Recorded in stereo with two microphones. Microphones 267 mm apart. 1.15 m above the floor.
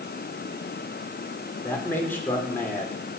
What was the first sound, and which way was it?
A man speaking, 10° left (ahead or behind).